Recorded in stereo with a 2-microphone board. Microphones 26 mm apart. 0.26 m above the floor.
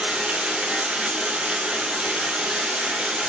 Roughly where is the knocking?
I don't hear knocking.